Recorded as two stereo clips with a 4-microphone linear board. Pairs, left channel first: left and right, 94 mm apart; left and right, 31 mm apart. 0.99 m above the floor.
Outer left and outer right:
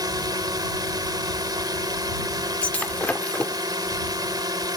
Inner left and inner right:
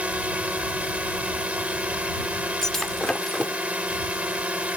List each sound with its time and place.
0.0 s a drone: 45° right (ahead or behind)
2.6 s breaking glass: 15° left (ahead or behind)